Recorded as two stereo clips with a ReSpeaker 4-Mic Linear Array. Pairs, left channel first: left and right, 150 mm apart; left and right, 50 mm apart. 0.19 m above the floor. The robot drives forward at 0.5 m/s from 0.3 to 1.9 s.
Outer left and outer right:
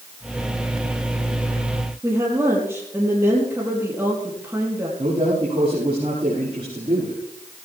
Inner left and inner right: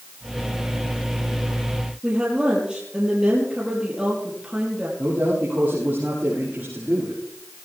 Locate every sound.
2.0 s a woman speaking: 15° right (ahead or behind), 4.5 m
5.0 s a man speaking: 35° right (ahead or behind), 7 m